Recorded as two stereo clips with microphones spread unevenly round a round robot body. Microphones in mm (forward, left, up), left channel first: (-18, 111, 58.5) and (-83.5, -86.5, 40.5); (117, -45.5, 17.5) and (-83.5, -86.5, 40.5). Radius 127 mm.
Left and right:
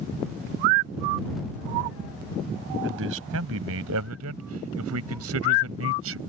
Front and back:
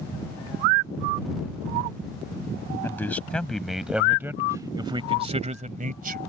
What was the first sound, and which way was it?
A man speaking, 70° right.